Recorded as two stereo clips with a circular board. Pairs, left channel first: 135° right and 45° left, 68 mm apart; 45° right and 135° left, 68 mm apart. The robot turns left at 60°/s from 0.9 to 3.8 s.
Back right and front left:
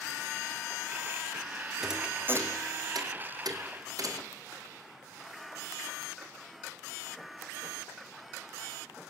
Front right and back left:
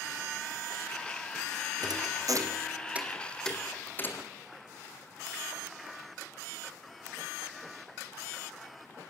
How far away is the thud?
About 2.5 m.